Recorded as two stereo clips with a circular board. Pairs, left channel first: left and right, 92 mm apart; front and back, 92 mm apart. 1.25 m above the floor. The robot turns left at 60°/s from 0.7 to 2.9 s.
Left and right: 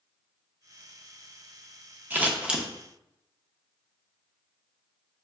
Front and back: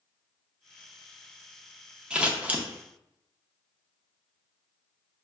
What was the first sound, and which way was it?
Scissors, 125° right.